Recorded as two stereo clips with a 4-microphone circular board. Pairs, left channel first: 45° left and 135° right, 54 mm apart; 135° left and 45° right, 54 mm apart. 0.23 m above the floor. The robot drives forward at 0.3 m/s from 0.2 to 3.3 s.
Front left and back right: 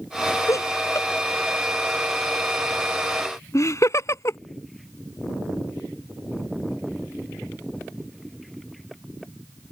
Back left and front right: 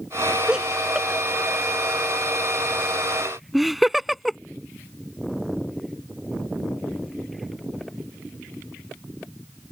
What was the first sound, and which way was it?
Laughter, 30° left.